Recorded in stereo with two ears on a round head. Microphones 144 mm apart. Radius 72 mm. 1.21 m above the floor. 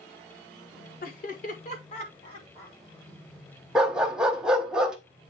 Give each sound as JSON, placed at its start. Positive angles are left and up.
{"t": 1.0, "sound": "laughter", "side_deg": 60, "distance_m": 1.4}
{"t": 3.8, "sound": "a dog barking", "side_deg": -5, "distance_m": 0.8}